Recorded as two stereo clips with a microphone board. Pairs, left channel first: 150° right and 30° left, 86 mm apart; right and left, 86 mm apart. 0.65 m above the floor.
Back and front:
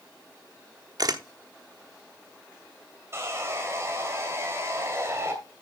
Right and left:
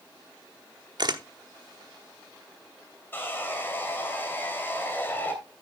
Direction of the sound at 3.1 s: 25° right.